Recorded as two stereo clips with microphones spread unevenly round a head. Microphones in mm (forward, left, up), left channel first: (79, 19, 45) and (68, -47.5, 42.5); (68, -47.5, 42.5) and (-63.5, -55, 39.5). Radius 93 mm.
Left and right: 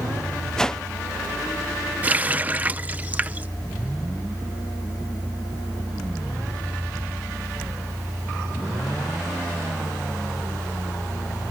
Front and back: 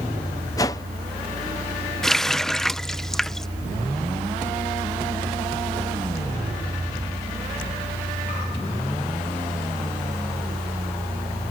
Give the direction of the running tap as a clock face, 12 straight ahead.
2 o'clock.